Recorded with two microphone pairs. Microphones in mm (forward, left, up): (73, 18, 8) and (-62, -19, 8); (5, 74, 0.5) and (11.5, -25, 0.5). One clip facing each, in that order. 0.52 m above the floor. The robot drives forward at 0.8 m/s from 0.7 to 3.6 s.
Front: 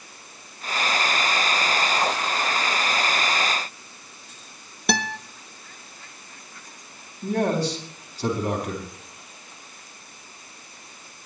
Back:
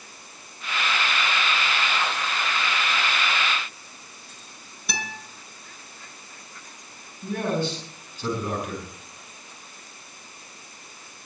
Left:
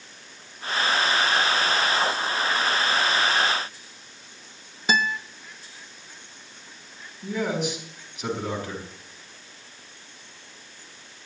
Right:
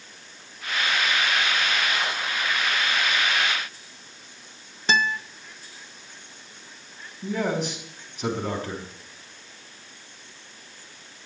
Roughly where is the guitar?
Ahead.